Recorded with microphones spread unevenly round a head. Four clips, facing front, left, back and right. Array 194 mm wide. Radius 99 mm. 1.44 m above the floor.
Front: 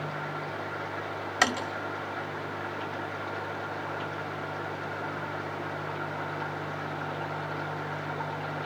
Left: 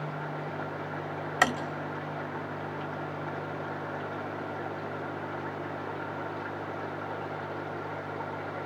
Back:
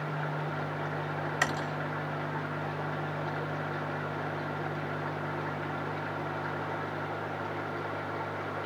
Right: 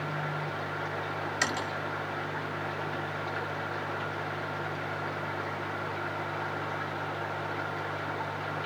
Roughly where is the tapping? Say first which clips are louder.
Left 7 dB, front 6 dB; ahead left.